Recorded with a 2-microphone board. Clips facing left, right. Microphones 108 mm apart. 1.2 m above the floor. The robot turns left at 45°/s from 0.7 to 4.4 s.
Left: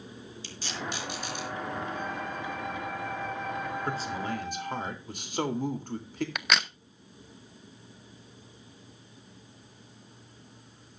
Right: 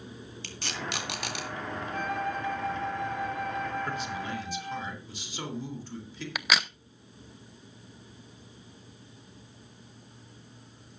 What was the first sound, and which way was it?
Tape being pulled, 65° right (ahead or behind).